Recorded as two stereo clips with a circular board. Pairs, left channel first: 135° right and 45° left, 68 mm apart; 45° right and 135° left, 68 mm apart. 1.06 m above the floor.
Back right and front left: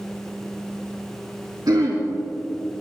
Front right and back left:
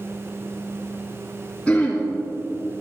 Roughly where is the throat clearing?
Ahead left.